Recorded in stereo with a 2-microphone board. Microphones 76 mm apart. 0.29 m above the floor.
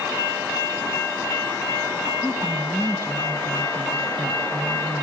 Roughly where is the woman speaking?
Right.